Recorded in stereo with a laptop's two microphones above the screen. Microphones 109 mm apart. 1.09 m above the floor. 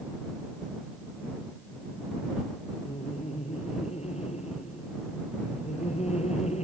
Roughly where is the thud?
No thud in this recording.